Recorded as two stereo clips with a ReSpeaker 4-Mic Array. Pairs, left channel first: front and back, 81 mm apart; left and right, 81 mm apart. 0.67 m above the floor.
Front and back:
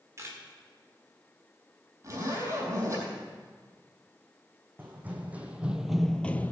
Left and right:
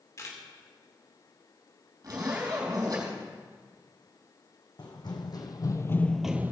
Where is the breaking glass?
I don't hear breaking glass.